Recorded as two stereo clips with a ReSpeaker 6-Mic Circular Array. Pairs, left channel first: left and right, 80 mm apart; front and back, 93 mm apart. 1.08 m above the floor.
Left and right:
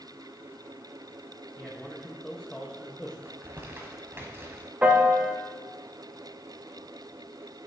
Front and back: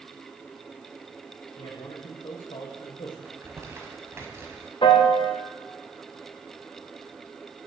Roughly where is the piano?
Ahead.